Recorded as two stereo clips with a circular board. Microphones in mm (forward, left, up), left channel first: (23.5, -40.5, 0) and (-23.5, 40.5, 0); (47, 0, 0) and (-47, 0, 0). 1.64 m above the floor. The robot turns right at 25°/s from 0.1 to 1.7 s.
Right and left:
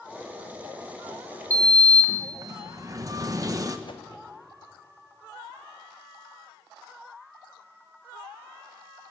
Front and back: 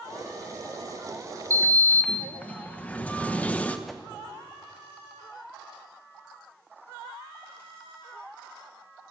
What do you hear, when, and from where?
1.5 s a sliding door: 70° left, 1.1 m; by 3.8 s 75° left, 1.1 m
3.9 s a whoosh: 90° right, 1.0 m